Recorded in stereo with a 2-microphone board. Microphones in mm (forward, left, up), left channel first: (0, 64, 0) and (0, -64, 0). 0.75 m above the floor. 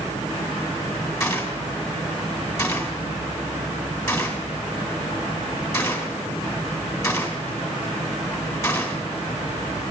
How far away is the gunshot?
About 2.5 m.